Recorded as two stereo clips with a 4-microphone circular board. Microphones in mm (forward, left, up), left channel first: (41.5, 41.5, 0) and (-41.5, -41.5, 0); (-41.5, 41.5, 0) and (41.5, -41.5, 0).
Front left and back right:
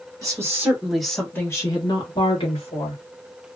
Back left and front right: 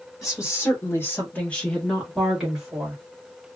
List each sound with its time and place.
0.2 s a woman speaking: 175° right, 1.1 m; by 3.0 s 35° left, 1.6 m